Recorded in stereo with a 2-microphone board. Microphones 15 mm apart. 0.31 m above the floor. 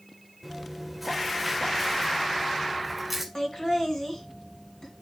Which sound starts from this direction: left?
Laughter, at 3.4 s.